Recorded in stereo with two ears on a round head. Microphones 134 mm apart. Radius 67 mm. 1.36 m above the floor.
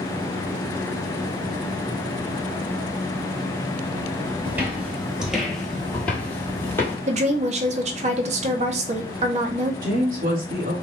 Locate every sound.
4.5 s footsteps: 15° right (ahead or behind), 1.4 m; by 7.0 s 15° left (ahead or behind), 1.7 m
7.1 s a woman speaking: 45° right (ahead or behind), 0.6 m
9.8 s a woman speaking: 60° right (ahead or behind), 1.5 m